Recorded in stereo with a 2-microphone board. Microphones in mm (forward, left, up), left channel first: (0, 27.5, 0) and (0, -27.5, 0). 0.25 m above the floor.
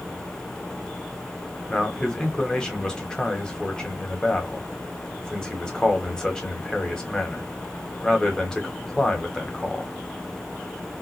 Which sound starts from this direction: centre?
A man speaking, at 1.7 s.